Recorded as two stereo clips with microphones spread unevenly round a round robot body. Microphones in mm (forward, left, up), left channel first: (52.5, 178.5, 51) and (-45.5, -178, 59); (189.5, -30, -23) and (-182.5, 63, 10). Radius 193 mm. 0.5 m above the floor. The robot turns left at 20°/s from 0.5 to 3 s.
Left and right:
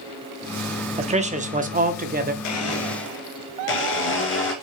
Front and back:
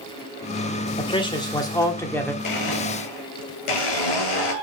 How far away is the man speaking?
About 0.8 m.